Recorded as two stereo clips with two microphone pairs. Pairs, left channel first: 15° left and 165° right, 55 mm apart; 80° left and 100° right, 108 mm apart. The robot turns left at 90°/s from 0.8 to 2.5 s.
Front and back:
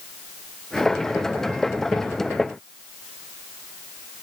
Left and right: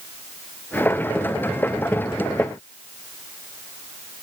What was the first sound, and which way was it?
Only background noise.